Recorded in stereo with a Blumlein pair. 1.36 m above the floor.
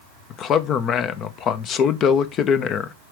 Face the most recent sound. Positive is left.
turn(degrees=30)